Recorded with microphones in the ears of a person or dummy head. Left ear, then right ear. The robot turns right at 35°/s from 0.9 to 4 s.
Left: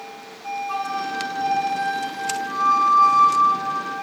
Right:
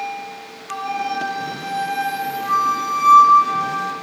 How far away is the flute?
About 0.5 m.